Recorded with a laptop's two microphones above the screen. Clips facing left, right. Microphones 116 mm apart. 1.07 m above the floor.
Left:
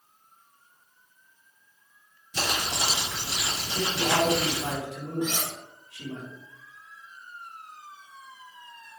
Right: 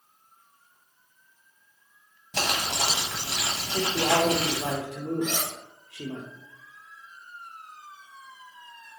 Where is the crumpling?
70° right (ahead or behind), 1.1 m.